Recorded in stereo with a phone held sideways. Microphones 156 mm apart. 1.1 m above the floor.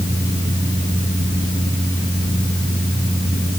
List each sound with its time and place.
0.0 s a fan: 45° left (ahead or behind), 8 m